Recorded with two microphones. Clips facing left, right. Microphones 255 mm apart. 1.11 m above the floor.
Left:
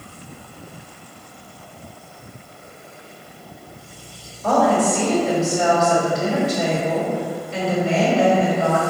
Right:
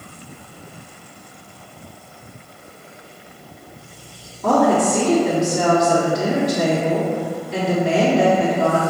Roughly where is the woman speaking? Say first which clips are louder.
Right 2 dB; right.